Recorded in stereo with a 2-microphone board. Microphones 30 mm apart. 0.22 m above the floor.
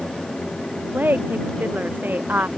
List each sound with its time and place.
0.9 s a woman speaking: 85° right